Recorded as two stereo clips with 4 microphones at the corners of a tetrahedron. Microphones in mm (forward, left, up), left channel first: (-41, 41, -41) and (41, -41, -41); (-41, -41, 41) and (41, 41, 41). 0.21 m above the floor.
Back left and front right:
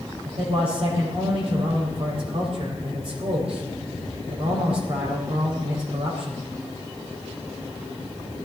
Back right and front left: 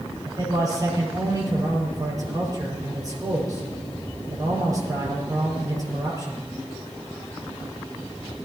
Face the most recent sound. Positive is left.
turn(degrees=-10)